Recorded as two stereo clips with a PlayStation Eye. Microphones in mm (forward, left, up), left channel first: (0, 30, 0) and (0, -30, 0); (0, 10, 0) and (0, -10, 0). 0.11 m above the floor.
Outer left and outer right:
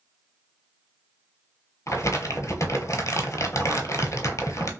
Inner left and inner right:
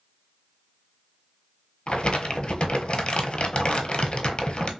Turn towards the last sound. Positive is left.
turn(degrees=60)  # may be behind; listen again after turning